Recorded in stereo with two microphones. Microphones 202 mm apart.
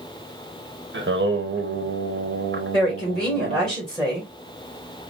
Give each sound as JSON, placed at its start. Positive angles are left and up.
{"t": 0.9, "sound": "singing", "side_deg": -65, "distance_m": 0.9}
{"t": 2.7, "sound": "a woman speaking", "side_deg": 5, "distance_m": 2.0}